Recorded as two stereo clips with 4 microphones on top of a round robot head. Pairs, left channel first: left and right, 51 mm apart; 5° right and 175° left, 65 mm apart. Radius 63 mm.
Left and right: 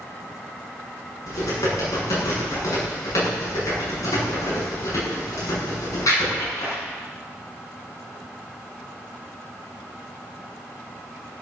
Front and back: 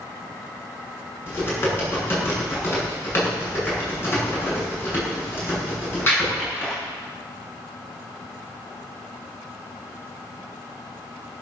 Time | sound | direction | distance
1.3 | typing on a keyboard | 55° left | 7.5 m